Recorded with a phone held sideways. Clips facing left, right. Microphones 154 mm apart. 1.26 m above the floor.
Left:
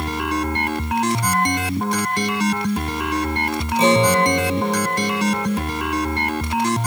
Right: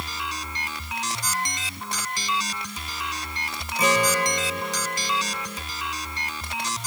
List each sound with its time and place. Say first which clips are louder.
0.0 s a machine running: left 12 dB; 60° left (ahead or behind)
3.8 s a guitar: left 7 dB; 25° left (ahead or behind)